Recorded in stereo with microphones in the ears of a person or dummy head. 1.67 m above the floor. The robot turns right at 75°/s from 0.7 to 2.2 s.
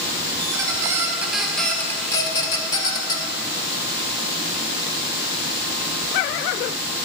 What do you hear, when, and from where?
0.4 s a squeak: 25° right (ahead or behind), 0.9 m; by 3.3 s 15° left (ahead or behind), 0.9 m